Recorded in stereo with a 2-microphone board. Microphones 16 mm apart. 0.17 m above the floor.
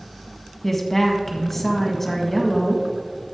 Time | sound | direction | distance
0.6 | a woman speaking | 20° left (ahead or behind) | 1.5 m